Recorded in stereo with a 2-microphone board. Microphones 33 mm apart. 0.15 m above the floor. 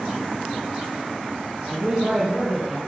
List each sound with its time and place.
1.7 s a man speaking: centre (ahead or behind), 3.5 m; by 2.8 s 15° left (ahead or behind), 4.5 m